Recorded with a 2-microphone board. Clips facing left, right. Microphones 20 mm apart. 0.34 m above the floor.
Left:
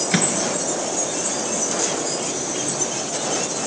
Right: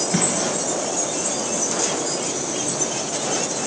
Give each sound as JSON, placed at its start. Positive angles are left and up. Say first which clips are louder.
{"t": 0.1, "sound": "a microwave", "louder": "left 1 dB", "side_deg": 50, "distance_m": 4.0}